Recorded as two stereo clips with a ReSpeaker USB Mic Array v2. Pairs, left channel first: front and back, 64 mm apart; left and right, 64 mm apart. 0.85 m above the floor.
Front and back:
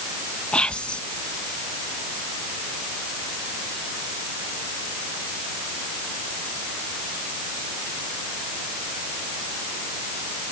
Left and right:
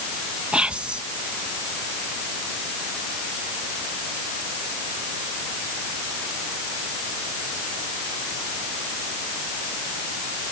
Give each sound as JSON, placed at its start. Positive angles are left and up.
{"t": 0.5, "sound": "whispering", "azimuth_deg": -45}